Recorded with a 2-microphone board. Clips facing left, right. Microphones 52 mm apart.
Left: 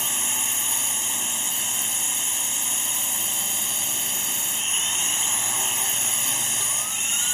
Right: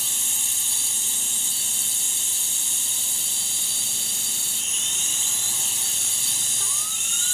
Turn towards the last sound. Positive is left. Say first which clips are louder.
# left 4 dB
turn(degrees=35)  # may be behind; listen again after turning